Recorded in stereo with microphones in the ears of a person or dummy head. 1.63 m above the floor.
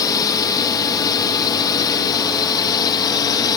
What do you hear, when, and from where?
0.0 s a drone: 15° left (ahead or behind); by 3.6 s 20° left (ahead or behind)